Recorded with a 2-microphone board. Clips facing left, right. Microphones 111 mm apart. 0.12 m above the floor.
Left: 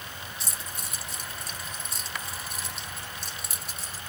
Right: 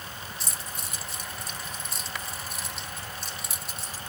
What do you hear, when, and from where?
0.4 s keys jangling: centre (ahead or behind), 1.0 m